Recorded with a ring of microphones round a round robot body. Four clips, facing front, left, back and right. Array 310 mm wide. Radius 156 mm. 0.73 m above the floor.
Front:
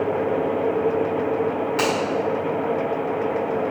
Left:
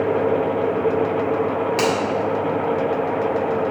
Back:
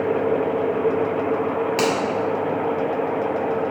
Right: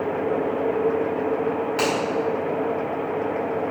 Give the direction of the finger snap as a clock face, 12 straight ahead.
7 o'clock.